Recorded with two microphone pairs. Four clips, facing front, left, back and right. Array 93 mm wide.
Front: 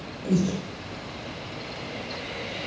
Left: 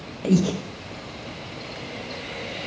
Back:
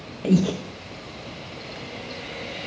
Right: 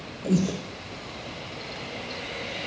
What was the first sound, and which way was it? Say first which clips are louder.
Breathing: left 4 dB, back 4 dB; 125° left.